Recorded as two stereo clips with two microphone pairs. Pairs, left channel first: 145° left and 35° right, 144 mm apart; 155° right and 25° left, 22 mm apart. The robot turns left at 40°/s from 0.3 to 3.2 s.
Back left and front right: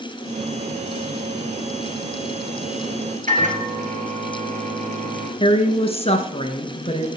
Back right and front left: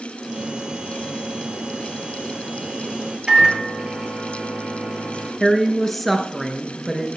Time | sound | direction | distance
3.3 | a microwave | 20° right | 2.5 m
5.4 | a woman speaking | 130° left | 1.4 m